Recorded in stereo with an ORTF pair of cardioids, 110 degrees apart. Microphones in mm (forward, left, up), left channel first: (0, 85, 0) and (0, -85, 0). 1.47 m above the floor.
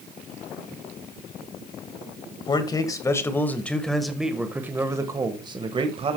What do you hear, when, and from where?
2.5 s a man speaking: 25° left, 1.8 m; by 6.2 s 35° right, 1.8 m